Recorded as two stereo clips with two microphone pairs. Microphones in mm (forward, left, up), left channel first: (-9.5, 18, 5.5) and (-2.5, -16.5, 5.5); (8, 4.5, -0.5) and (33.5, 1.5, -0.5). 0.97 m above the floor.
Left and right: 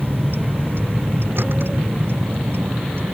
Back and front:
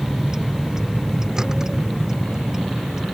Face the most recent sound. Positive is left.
turn(degrees=-75)